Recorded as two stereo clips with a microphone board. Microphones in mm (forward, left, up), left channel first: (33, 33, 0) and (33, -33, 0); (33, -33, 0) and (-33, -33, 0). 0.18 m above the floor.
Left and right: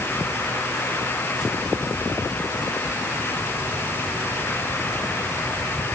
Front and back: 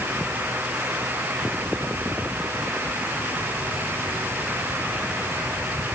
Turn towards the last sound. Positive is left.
No sound to turn to.